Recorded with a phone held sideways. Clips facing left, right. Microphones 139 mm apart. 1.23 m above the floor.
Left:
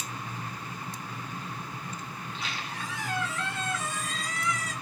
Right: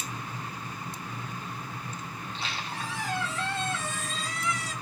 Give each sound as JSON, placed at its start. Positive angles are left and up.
{"t": 2.2, "sound": "a squeak", "side_deg": -30, "distance_m": 5.5}